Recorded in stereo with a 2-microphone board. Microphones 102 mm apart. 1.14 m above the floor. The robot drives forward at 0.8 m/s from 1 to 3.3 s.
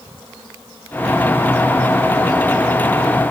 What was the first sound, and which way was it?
Only background noise.